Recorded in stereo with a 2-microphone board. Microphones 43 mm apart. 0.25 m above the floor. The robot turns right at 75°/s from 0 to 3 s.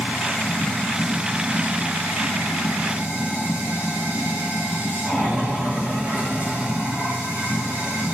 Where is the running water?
95° left, 5 m; by 8.2 s 40° right, 5 m.